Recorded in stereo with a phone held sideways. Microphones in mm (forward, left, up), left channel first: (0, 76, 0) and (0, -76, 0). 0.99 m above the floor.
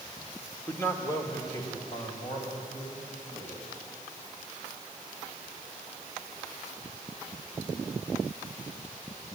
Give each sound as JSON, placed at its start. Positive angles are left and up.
{"t": 0.7, "sound": "a man speaking", "side_deg": 15, "distance_m": 2.0}